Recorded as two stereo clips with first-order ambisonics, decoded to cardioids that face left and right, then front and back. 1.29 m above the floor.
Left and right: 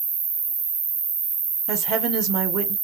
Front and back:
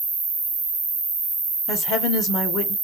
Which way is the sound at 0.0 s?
135° right.